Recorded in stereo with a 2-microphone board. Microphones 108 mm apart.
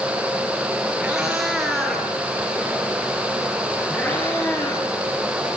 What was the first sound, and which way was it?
A cat meowing, 10° right (ahead or behind).